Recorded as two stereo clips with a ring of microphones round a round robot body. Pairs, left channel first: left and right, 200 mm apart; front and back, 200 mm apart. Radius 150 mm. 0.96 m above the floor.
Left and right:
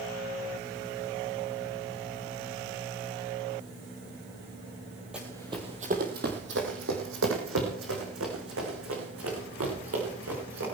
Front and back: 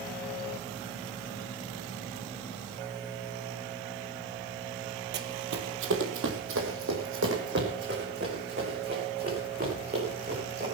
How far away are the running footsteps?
About 1.5 m.